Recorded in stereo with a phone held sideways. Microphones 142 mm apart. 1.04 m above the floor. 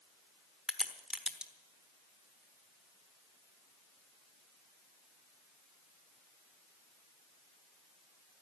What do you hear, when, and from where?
0.7 s a crack: 5° right (ahead or behind), 1.1 m